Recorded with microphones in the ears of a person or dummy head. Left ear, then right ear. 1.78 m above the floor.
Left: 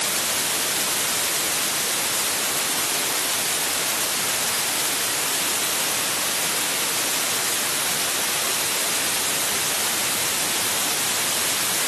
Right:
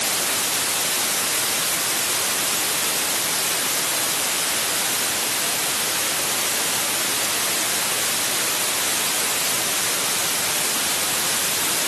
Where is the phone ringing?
I don't hear a phone ringing.